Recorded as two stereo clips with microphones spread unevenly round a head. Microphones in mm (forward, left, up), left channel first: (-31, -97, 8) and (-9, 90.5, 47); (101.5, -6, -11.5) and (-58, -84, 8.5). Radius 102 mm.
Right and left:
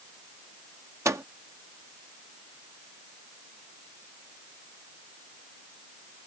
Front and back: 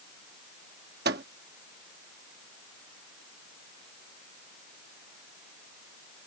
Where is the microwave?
160° left.